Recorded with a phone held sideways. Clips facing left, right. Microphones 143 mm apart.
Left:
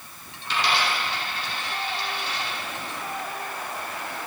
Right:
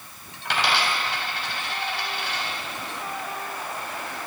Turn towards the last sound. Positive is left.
turn(degrees=-80)